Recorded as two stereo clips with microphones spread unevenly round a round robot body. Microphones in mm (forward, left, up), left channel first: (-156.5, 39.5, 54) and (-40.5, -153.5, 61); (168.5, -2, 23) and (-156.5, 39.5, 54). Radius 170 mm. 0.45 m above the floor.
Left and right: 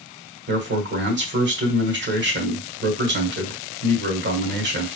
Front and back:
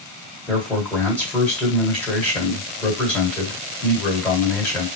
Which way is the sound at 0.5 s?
90° right.